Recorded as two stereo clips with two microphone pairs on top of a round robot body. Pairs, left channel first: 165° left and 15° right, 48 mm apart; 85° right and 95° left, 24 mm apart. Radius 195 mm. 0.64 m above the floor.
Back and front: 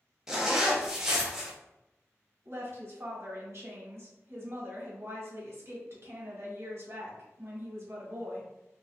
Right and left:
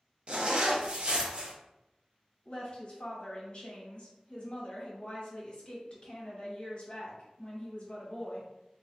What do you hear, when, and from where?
0.3 s a zipper: 65° left, 0.9 m
2.5 s a woman speaking: 45° right, 1.3 m